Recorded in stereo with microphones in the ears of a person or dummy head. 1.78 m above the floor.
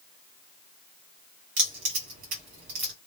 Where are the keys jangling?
40° right (ahead or behind), 1.2 m.